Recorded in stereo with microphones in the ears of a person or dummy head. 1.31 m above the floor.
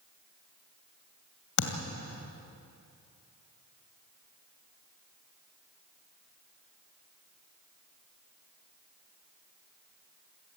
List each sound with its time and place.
1.6 s a thud: 65° left (ahead or behind), 2.5 m